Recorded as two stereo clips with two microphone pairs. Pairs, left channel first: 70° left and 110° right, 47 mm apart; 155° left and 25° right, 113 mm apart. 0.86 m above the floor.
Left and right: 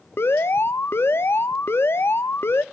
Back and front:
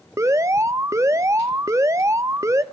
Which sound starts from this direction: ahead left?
An alarm, at 0.2 s.